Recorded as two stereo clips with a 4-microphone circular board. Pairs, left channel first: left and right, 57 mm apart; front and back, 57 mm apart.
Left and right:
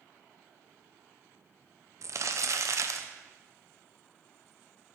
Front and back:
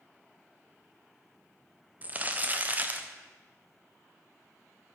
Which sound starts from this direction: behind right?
Crumpling, at 2.0 s.